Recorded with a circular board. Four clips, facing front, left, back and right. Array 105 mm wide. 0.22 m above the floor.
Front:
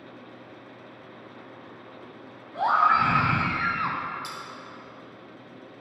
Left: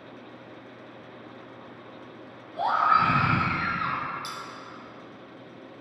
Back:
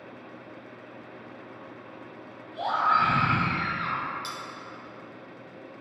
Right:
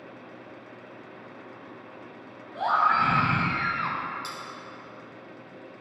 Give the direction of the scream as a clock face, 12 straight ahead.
12 o'clock.